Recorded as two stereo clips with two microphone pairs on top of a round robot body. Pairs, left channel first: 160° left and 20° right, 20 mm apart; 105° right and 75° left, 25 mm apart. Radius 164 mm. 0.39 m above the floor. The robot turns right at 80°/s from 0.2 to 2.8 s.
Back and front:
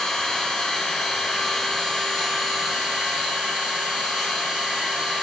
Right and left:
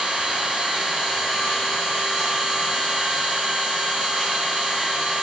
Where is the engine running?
105° left, 1.8 m; by 5.2 s 45° right, 1.8 m.